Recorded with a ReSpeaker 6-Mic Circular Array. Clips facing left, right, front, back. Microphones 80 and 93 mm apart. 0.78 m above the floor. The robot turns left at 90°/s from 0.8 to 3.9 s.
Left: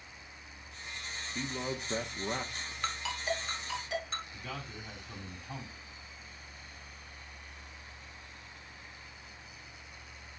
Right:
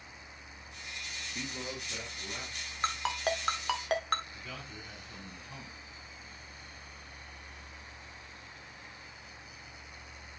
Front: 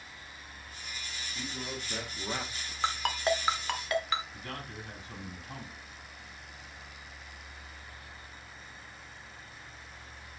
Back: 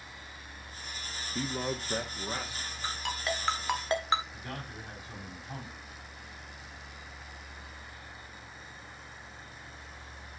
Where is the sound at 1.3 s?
170° left, 1.1 m; by 2.7 s 45° left, 1.1 m.